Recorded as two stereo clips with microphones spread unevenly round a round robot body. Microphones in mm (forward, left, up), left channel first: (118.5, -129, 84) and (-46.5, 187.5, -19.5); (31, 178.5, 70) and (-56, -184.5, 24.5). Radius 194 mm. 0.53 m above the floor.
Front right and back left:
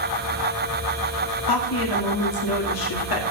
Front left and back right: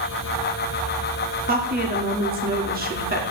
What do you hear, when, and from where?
1.5 s a woman speaking: 60° right, 1.7 m